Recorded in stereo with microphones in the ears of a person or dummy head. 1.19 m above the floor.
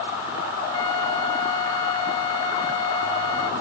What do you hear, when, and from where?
0.7 s a flute: 30° left (ahead or behind)